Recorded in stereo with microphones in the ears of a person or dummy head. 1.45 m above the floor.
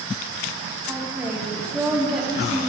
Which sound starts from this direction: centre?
A woman speaking, at 0.9 s.